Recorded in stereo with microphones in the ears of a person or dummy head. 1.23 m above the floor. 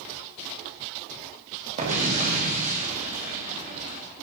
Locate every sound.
1.8 s an explosion: 40° right (ahead or behind), 1.9 m